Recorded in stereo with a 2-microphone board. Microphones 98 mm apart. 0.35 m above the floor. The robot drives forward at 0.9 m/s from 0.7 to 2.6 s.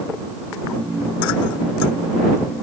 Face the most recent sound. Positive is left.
No sound to turn to.